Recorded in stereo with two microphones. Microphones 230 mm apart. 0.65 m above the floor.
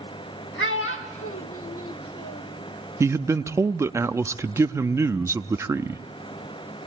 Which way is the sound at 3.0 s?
10° right (ahead or behind).